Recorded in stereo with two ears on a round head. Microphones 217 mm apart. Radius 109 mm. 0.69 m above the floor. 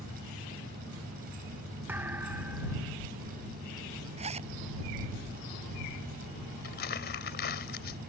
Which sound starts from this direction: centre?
A thud, at 1.9 s.